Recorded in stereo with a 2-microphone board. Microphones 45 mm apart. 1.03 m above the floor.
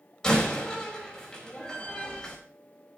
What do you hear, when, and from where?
0.2 s a door slam: 15° left (ahead or behind), 4.5 m